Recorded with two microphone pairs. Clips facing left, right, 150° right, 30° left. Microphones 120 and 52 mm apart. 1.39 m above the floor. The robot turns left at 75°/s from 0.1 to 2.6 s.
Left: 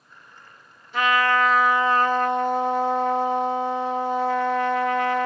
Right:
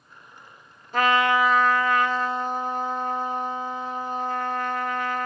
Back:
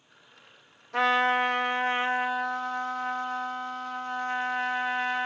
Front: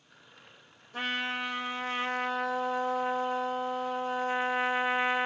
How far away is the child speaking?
I don't hear a child speaking.